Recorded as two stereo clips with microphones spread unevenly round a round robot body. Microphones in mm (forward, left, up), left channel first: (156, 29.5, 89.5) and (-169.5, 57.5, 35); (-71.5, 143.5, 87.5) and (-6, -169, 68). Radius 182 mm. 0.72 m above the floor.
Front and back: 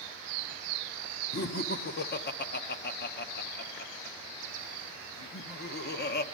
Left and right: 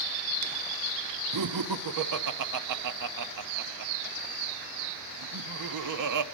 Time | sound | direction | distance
1.3 | laughter | 70° right | 1.0 m